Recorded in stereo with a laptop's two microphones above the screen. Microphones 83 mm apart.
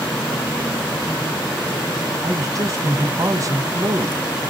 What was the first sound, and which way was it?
A man speaking, 40° right (ahead or behind).